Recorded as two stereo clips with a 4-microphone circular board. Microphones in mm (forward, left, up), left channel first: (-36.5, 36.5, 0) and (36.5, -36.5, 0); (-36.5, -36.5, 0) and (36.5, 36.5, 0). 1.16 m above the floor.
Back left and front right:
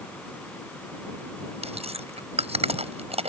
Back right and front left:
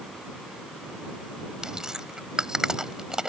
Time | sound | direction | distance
1.6 | chewing | 40° right | ?